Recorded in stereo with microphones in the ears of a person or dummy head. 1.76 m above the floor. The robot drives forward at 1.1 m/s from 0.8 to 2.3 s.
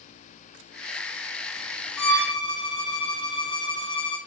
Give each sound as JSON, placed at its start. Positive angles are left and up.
{"t": 2.0, "sound": "a violin", "side_deg": 35, "distance_m": 3.0}